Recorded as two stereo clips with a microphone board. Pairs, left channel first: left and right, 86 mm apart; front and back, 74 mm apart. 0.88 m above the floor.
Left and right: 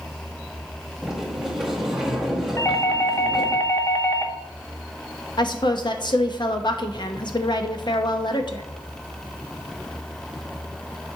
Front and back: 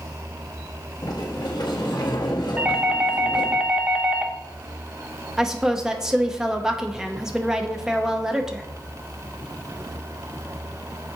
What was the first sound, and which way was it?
A sliding door, 5° right.